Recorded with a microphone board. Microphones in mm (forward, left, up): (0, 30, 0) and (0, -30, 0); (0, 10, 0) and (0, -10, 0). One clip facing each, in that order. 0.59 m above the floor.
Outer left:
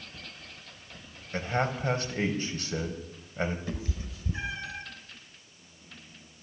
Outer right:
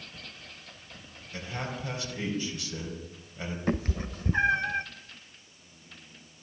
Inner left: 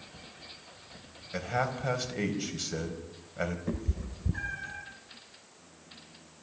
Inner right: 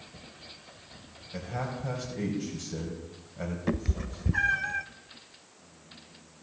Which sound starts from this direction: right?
A cat meowing, at 3.7 s.